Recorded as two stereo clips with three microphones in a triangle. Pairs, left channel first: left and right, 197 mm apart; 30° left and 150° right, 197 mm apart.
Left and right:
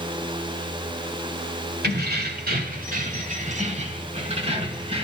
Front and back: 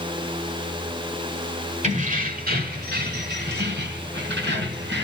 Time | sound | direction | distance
1.8 | keys jangling | 105° right | 1.5 m